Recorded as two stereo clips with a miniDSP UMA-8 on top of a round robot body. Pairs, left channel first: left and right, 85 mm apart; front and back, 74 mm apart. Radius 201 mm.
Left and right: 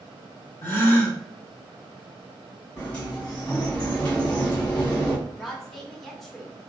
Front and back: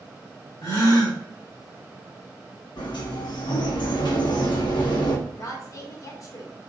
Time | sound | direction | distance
0.6 | a gasp | 25° left | 2 m
2.8 | a sliding door | 15° left | 1.7 m
5.3 | a woman speaking | 5° left | 1.4 m